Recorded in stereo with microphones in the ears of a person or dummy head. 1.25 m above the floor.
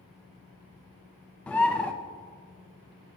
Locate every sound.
0.0 s a fan: 75° left (ahead or behind), 4 m
1.5 s a bird: 5° left (ahead or behind), 0.5 m